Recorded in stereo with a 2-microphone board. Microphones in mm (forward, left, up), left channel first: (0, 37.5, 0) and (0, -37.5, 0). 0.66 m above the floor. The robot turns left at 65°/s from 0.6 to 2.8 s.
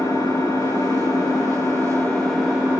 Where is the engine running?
115° left, 6.5 m; by 2.8 s 25° right, 6.5 m.